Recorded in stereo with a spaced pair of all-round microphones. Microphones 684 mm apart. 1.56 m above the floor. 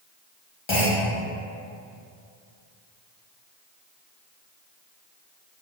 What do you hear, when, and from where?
0.7 s a clunk: 45° left (ahead or behind), 0.8 m